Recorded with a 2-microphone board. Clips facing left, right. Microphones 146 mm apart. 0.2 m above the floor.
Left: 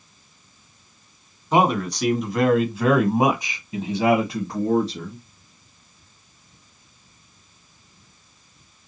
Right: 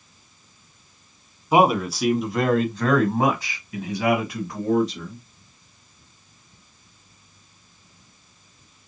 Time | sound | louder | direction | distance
1.5 | a man speaking | right 2 dB | 10° right (ahead or behind) | 1.7 m